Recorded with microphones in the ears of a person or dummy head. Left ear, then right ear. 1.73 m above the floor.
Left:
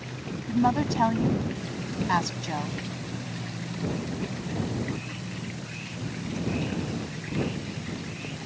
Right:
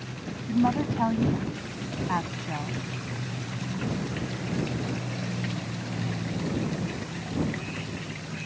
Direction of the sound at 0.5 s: 80° left.